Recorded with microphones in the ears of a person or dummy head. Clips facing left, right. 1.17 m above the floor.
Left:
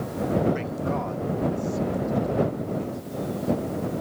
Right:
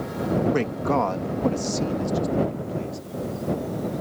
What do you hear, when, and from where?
0.5 s a man speaking: 65° right (ahead or behind); by 3.0 s 80° right